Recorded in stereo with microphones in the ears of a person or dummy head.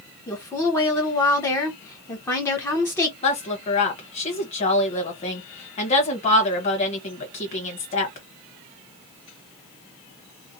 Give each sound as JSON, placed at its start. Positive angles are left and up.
{"t": 0.3, "sound": "a woman speaking", "side_deg": 10, "distance_m": 0.8}
{"t": 3.2, "sound": "a woman speaking", "side_deg": 35, "distance_m": 1.3}